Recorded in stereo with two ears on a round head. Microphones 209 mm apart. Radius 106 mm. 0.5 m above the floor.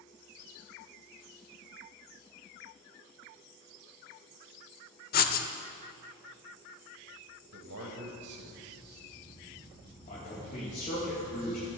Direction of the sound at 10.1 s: 35° left (ahead or behind).